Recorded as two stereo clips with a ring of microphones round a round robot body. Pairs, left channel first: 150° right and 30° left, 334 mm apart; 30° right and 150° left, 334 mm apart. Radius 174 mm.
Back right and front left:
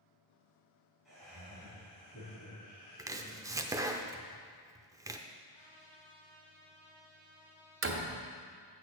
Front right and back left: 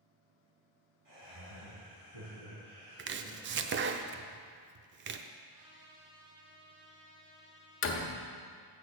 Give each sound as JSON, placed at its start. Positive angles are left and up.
{"t": 1.1, "sound": "laughter", "azimuth_deg": 120, "distance_m": 4.0}
{"t": 3.0, "sound": "chopping", "azimuth_deg": 105, "distance_m": 0.6}
{"t": 5.5, "sound": "a trumpet", "azimuth_deg": 125, "distance_m": 3.5}
{"t": 7.8, "sound": "a door slam", "azimuth_deg": 0, "distance_m": 1.0}